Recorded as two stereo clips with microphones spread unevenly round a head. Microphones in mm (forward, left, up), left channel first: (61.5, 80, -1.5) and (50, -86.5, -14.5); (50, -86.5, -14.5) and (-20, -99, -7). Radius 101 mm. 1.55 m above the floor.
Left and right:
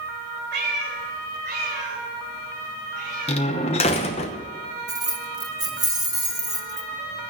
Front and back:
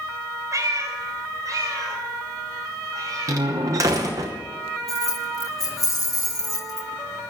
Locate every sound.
0.5 s a cat meowing: 135° right, 3 m; by 3.4 s 145° right, 5 m
3.3 s a door slam: 140° left, 0.8 m
4.9 s keys jangling: 25° right, 1.8 m